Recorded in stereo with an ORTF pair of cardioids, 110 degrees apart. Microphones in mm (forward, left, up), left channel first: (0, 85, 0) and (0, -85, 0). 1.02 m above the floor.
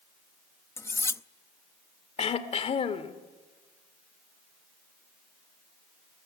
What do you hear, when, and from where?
0.8 s cutlery clinking: 15° left, 0.6 m
2.2 s throat clearing: 40° left, 2 m